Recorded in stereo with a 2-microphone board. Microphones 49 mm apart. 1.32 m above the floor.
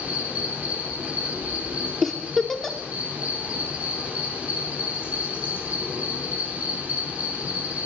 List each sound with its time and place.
0.0 s an insect: 30° right (ahead or behind), 3 m
2.0 s a giggle: 10° left (ahead or behind), 0.9 m